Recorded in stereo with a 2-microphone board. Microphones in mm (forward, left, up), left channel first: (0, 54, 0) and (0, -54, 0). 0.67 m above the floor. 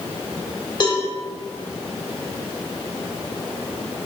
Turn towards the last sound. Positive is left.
turn(degrees=40)  # may be behind; listen again after turning